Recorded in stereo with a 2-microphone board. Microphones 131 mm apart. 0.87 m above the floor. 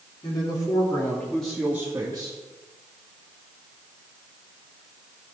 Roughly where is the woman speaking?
Left.